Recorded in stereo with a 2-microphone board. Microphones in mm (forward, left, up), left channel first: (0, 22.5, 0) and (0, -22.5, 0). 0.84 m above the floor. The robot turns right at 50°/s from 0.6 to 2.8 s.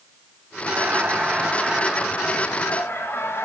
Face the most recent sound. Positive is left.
turn(degrees=50)